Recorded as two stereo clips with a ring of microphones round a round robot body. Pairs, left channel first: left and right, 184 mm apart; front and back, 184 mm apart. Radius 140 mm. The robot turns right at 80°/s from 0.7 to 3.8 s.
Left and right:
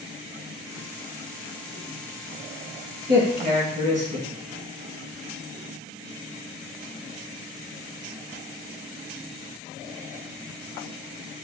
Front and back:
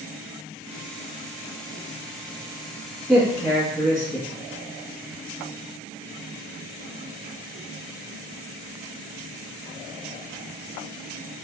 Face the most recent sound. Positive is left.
turn(degrees=-50)